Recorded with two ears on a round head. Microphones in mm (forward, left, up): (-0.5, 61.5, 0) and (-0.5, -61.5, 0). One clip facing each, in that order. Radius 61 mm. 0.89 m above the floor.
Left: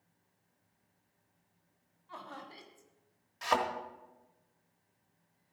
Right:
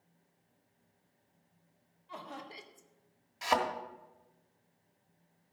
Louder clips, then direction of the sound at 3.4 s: Right 1 dB; 5° right (ahead or behind).